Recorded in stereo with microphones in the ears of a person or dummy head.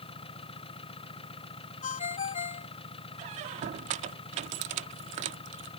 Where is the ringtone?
40° left (ahead or behind).